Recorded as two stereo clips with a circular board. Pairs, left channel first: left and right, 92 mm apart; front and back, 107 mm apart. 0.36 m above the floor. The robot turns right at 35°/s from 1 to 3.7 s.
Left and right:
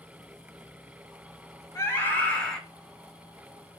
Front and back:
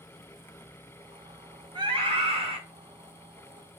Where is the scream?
145° left, 2.5 m; by 2.6 s 175° left, 2.5 m.